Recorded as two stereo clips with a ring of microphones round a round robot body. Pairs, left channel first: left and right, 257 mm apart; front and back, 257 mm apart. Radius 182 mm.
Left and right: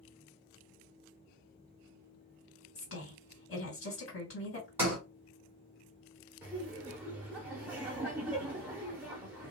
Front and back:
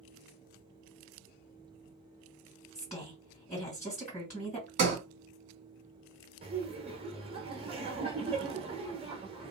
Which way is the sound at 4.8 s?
165° right.